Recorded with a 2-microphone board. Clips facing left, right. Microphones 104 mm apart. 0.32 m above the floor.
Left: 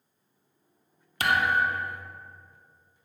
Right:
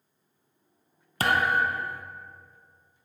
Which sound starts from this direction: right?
A thud, at 1.2 s.